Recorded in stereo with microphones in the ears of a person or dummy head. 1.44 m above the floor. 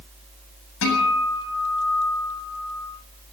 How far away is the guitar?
About 8 m.